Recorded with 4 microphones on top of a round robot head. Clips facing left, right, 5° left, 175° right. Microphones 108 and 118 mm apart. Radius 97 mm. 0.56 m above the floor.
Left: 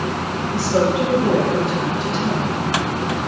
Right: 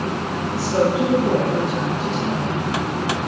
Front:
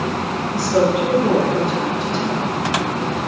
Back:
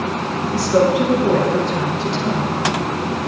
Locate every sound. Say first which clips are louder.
0.5 s a woman speaking: left 1 dB, back 2 dB; 155° right, 5.5 m